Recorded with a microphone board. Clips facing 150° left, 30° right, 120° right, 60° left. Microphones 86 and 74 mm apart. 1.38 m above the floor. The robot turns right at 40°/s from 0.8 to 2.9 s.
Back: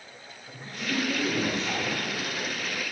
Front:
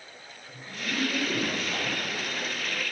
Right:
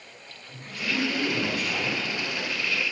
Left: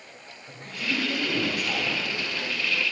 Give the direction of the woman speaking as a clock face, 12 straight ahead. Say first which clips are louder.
Back 3 dB, even; 8 o'clock.